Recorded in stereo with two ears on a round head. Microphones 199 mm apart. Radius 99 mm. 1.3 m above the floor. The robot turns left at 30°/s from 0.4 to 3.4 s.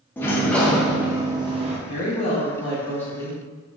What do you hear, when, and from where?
0.2 s a sliding door: 10° left, 0.7 m; by 1.8 s 30° right, 0.7 m
1.9 s a woman speaking: 45° left, 1.9 m; by 3.7 s straight ahead, 1.9 m